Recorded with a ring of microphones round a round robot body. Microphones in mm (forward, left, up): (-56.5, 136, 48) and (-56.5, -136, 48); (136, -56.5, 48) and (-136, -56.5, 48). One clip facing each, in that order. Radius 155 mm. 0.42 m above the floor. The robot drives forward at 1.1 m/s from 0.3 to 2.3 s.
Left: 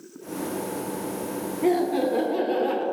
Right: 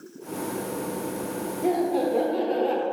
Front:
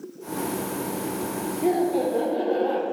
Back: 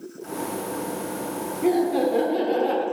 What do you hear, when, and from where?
1.6 s laughter: 95° left, 1.0 m; by 2.8 s 145° left, 1.3 m